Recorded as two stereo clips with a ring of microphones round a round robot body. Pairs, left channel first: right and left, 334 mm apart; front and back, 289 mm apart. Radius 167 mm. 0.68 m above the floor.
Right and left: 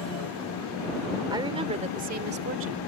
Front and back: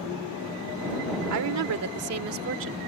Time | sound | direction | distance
1.3 | a woman speaking | 170° left | ?